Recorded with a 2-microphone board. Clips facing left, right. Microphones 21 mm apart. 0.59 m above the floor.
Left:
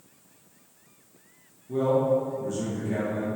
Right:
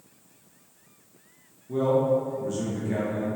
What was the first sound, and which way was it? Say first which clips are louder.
A man speaking: even; 15° right (ahead or behind).